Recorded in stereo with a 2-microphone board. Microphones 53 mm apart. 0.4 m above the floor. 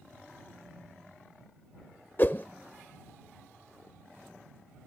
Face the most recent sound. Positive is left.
turn(degrees=40)  # may be behind; listen again after turning